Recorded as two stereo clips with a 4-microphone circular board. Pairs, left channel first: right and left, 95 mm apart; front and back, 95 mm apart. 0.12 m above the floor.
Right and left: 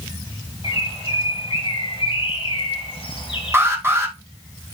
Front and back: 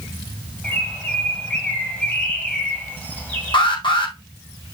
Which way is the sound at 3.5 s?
25° left.